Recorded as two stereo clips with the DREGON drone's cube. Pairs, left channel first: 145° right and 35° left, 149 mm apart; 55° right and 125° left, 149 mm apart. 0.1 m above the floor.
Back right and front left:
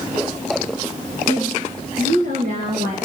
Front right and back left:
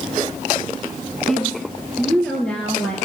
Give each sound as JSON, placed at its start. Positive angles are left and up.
{"t": 1.3, "sound": "a woman speaking", "azimuth_deg": 30, "distance_m": 1.3}